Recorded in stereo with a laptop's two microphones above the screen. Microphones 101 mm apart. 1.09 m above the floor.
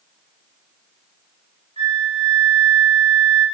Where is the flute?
90° right, 0.5 m.